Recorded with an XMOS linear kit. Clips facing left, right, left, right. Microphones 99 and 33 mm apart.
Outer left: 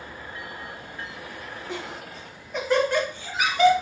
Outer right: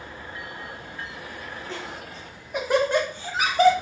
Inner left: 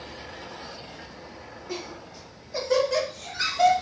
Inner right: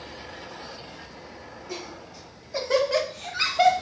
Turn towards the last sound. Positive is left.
turn(degrees=-40)  # may be behind; listen again after turning